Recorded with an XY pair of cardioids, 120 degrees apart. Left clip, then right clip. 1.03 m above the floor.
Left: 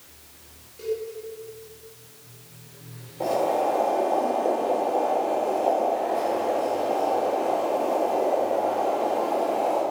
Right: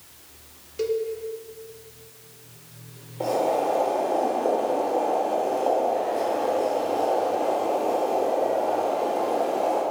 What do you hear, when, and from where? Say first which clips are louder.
0.8 s a cowbell: right 4 dB; 65° right, 1.8 m
3.2 s boiling: even; 10° right, 4.5 m